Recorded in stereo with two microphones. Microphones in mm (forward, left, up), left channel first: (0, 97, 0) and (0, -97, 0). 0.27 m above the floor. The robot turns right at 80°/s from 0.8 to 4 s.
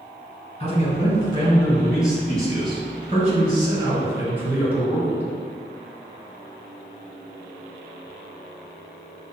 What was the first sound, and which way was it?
A man speaking, 85° left.